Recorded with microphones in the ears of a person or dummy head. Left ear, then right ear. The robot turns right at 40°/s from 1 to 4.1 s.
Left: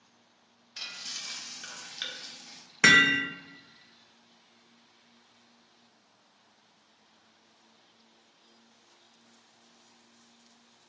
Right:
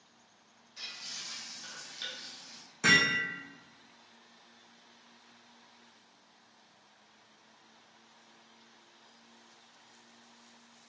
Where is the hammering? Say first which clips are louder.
Left 5 dB; 60° left (ahead or behind), 0.5 m; by 3.2 s 50° left (ahead or behind), 0.5 m.